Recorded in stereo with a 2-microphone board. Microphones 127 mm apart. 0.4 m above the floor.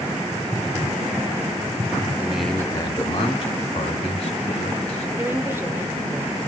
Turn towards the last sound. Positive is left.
turn(degrees=-20)  # may be behind; listen again after turning